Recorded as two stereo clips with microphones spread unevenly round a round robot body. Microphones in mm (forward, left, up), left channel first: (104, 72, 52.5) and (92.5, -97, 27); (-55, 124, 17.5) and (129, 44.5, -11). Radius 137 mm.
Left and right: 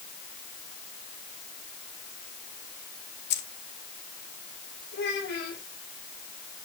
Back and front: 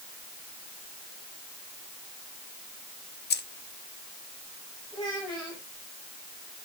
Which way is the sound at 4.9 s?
85° left.